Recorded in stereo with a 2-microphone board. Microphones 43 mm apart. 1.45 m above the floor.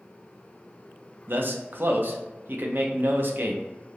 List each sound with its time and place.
1.3 s a man speaking: 50° right (ahead or behind), 0.6 m